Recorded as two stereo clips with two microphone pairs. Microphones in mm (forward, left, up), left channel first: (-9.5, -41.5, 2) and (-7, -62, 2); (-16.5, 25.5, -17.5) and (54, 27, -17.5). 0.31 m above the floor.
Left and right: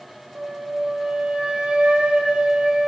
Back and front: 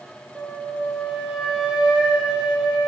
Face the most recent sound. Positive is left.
turn(degrees=-75)